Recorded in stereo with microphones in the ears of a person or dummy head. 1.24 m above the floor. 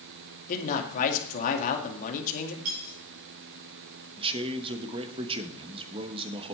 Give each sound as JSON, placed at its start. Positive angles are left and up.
{"t": 0.5, "sound": "a man speaking", "side_deg": 50, "distance_m": 2.0}
{"t": 2.6, "sound": "cutlery clinking", "side_deg": -50, "distance_m": 5.0}
{"t": 4.2, "sound": "a man speaking", "side_deg": -30, "distance_m": 1.1}